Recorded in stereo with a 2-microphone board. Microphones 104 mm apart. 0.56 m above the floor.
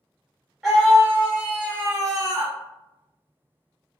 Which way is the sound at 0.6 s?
5° right (ahead or behind).